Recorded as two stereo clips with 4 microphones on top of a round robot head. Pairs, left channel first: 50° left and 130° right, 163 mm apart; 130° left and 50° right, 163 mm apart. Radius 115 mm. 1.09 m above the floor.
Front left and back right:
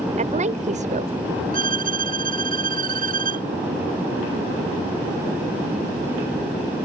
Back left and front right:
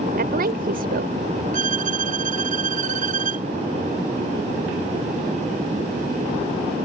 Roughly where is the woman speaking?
Right.